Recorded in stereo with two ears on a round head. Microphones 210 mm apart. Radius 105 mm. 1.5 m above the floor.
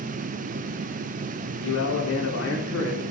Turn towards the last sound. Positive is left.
turn(degrees=65)  # may be behind; listen again after turning